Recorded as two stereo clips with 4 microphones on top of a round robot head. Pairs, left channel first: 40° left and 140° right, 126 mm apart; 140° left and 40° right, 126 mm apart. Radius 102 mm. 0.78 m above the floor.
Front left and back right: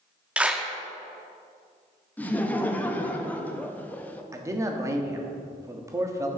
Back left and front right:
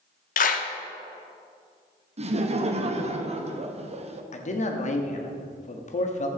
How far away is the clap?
About 1.0 m.